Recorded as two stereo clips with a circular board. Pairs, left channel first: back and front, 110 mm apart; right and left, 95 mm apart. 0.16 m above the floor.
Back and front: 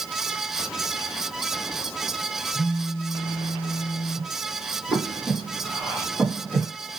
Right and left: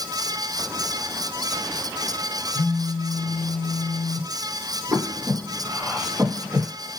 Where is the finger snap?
No finger snap in this recording.